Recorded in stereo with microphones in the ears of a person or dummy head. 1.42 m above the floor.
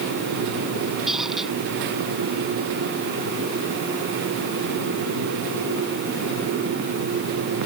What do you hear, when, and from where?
1.1 s a squeak: 5° right (ahead or behind)